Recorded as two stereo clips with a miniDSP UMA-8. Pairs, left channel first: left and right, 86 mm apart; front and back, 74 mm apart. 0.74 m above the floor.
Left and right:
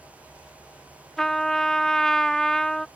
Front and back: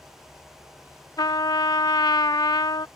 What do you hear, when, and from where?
1.2 s a trumpet: 10° left